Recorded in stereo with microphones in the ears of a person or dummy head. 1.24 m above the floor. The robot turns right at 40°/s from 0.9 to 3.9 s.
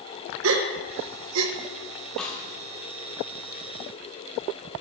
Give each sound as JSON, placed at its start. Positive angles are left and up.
{"t": 0.4, "sound": "a gasp", "side_deg": -65, "distance_m": 0.9}
{"t": 2.2, "sound": "a snare drum", "side_deg": 5, "distance_m": 1.7}